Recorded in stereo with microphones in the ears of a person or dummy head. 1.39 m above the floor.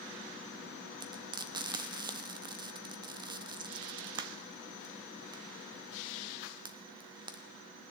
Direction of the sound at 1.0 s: 25° right (ahead or behind).